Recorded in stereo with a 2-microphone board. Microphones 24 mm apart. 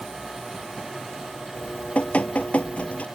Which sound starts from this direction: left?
Dripping, at 1.6 s.